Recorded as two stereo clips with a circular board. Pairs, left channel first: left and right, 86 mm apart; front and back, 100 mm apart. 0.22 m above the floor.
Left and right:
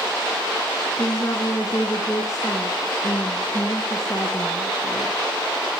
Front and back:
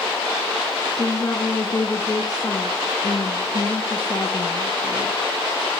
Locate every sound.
1.0 s a woman speaking: 40° left, 3 m